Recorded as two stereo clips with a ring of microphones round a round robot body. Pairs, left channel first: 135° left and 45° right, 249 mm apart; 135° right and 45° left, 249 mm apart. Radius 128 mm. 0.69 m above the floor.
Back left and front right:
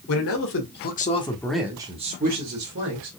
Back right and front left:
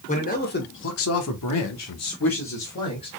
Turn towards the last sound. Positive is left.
turn(degrees=-85)